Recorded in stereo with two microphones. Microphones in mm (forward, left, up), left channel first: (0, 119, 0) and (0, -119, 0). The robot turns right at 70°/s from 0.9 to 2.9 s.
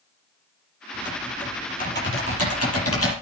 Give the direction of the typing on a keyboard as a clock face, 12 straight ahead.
1 o'clock.